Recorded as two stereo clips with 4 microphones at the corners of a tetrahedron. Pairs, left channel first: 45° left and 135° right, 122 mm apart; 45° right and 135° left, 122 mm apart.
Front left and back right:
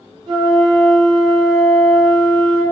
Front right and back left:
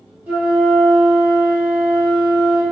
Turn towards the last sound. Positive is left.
turn(degrees=-155)